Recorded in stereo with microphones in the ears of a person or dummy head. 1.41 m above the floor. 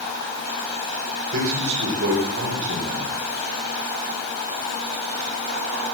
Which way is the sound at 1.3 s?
75° right (ahead or behind).